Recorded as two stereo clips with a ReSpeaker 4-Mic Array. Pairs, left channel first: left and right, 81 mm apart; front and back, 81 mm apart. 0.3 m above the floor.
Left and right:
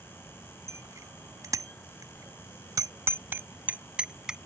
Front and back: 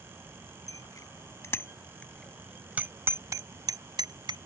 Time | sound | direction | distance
0.7 | a bicycle bell | 40° right | ?